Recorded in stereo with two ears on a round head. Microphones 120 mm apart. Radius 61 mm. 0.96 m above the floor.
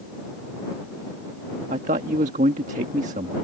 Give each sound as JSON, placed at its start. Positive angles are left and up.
{"t": 1.7, "sound": "a man speaking", "side_deg": -55}